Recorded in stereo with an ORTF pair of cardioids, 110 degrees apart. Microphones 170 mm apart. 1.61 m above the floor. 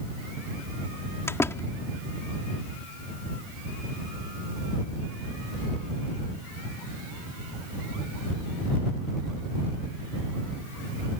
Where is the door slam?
15° left.